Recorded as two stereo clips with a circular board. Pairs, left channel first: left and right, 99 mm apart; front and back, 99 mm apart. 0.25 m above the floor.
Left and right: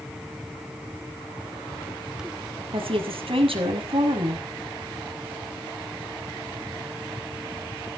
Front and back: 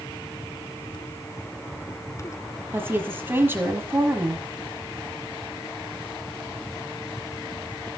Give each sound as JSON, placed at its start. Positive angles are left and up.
{"t": 2.7, "sound": "a woman speaking", "azimuth_deg": -115, "distance_m": 6.0}